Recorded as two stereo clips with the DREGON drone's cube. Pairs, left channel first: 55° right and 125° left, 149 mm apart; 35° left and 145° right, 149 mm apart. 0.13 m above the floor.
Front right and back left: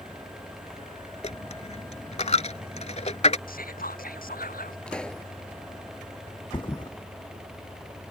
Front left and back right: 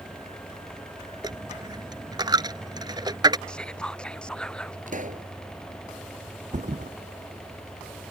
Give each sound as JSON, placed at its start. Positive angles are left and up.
{"t": 1.2, "sound": "a dropped coin", "azimuth_deg": -90}
{"t": 3.5, "sound": "whispering", "azimuth_deg": -50}
{"t": 4.9, "sound": "a pop", "azimuth_deg": -140}
{"t": 6.5, "sound": "a thud", "azimuth_deg": -115}